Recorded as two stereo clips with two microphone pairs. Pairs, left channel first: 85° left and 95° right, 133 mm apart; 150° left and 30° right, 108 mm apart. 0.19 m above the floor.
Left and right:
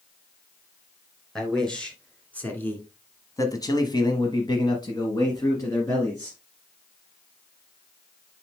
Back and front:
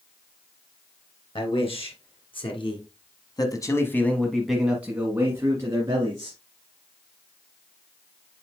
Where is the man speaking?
170° left, 2.5 m; by 6.4 s 20° left, 2.5 m.